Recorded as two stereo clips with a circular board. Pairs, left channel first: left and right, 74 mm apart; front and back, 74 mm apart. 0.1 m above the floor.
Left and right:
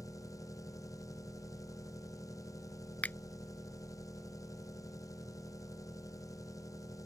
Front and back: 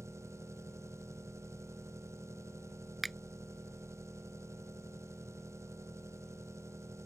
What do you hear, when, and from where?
0.0 s an engine running: 130° left
3.0 s a finger snap: 90° left